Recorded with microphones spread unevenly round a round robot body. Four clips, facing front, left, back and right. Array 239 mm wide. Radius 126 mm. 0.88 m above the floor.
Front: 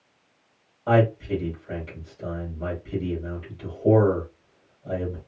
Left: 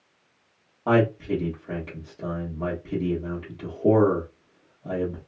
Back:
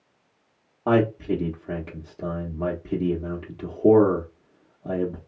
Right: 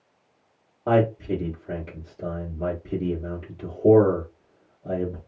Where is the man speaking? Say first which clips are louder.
Even, even; 165° left, 1.3 m.